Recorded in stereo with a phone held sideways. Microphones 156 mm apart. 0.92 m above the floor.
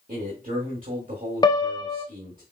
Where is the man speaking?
65° right (ahead or behind), 1.6 m.